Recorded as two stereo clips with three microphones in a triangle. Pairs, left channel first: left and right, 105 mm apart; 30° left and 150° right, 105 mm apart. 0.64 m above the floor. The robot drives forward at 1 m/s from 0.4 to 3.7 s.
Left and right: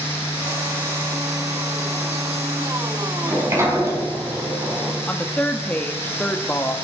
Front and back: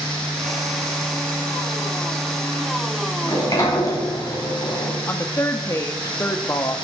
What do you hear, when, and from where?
3.2 s a sliding door: 25° right, 5 m; by 5.0 s 30° right, 4.5 m
5.1 s a woman speaking: 35° left, 1.0 m